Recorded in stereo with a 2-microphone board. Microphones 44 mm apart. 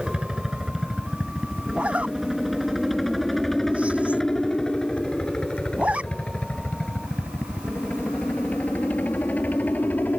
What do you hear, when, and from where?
0.0 s a helicopter: 20° right (ahead or behind); by 10.2 s 40° left (ahead or behind)
1.7 s a zipper: 30° right (ahead or behind)